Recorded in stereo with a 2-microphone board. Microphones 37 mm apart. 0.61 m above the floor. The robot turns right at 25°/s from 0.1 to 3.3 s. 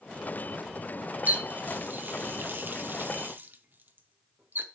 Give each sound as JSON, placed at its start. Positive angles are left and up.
{"t": 1.3, "sound": "a running tap", "side_deg": -45, "distance_m": 0.6}